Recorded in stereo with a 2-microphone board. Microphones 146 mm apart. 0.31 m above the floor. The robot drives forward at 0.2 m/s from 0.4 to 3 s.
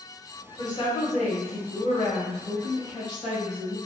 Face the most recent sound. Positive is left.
turn(degrees=40)  # may be behind; listen again after turning